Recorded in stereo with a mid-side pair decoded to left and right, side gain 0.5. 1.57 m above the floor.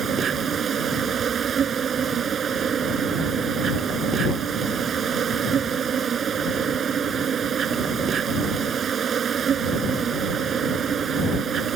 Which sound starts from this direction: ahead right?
An insect, at 0.0 s.